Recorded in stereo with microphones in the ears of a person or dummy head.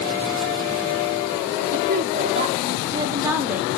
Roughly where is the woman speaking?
Right.